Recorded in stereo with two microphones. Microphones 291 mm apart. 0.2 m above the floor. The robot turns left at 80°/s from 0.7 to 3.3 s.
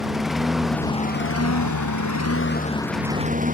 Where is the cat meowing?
I don't hear a cat meowing.